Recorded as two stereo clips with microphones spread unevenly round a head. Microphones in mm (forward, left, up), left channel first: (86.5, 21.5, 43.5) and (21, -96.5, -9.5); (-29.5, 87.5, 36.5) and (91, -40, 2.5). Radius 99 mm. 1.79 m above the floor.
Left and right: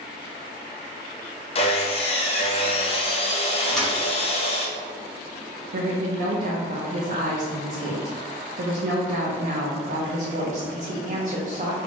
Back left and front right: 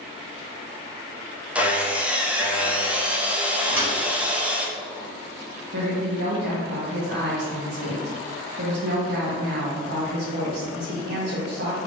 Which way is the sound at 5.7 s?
85° right.